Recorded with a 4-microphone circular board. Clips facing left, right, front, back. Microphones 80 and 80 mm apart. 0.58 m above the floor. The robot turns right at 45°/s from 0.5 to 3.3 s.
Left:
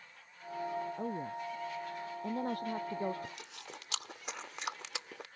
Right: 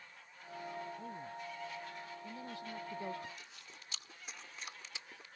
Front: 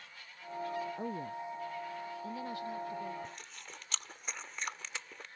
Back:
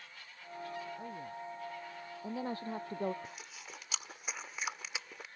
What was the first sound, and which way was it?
A woman speaking, 55° left.